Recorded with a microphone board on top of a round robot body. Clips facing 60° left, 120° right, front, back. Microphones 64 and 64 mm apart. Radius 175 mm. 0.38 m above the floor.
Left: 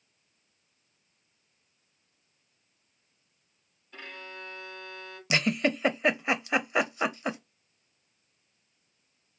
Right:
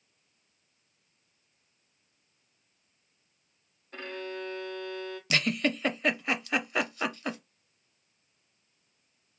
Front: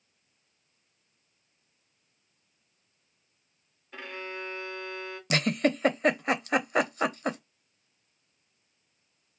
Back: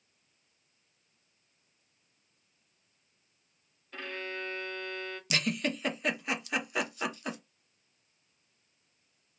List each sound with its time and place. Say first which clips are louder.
3.9 s a violin: right 6 dB, even; 80° right, 1.2 m
5.3 s a giggle: left 2 dB, front 6 dB; straight ahead, 0.7 m